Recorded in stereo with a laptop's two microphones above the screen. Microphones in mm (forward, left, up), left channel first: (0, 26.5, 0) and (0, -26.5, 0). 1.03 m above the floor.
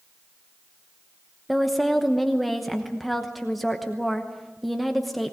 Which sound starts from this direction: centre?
A woman speaking, at 1.5 s.